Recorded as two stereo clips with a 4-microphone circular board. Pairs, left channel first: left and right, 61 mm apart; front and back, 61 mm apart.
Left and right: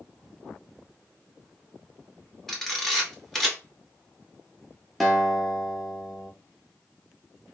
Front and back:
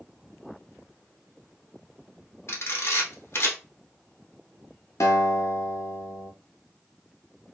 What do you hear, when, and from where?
2.5 s a camera shutter: 5° left, 0.9 m
5.0 s a guitar: straight ahead, 0.7 m